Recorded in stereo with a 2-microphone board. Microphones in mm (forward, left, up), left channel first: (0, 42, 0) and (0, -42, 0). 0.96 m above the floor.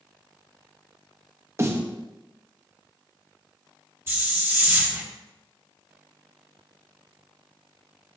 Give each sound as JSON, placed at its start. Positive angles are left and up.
{"t": 1.6, "sound": "a snare drum", "side_deg": -30, "distance_m": 1.1}
{"t": 4.1, "sound": "a hiss", "side_deg": -25, "distance_m": 1.8}